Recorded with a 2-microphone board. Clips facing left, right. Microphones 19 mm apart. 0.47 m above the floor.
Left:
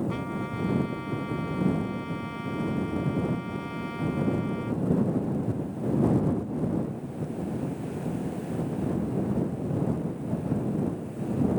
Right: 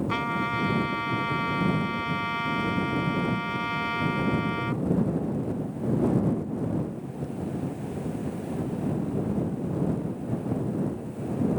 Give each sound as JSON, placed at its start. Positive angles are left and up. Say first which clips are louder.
{"t": 0.1, "sound": "a trumpet", "louder": "right 5 dB", "side_deg": -35}